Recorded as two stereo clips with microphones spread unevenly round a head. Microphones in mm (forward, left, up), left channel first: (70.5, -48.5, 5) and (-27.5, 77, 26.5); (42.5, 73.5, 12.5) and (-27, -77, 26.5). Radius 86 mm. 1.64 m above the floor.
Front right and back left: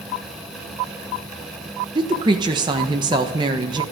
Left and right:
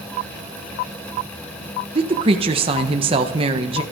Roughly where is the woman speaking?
Behind.